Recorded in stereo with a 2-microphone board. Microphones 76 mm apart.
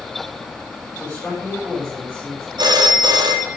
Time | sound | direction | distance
0.9 | a man speaking | 10° left (ahead or behind) | 10 m
2.6 | a phone ringing | 70° right (ahead or behind) | 2.5 m